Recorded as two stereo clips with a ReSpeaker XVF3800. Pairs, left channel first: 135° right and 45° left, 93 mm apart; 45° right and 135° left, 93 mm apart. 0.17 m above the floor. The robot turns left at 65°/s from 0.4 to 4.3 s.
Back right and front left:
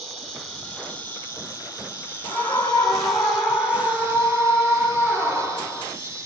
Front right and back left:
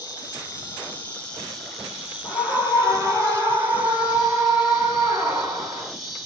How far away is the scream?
About 1.0 m.